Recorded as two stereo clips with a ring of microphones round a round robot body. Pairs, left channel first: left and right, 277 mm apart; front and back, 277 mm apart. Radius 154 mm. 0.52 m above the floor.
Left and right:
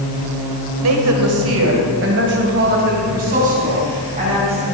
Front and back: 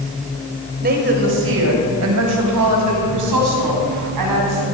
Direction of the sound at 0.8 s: 120° right.